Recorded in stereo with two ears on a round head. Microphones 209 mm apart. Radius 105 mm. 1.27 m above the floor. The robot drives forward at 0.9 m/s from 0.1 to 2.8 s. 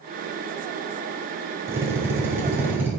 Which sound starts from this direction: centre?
A drill, at 1.7 s.